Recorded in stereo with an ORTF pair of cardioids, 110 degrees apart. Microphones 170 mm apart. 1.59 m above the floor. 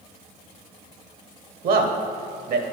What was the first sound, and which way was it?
A man speaking, 60° right.